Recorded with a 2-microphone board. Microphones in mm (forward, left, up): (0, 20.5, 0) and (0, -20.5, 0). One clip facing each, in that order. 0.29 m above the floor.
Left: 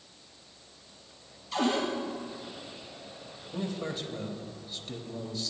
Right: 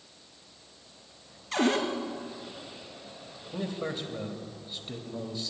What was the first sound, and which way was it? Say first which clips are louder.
A cupboard door: right 2 dB; 70° right (ahead or behind).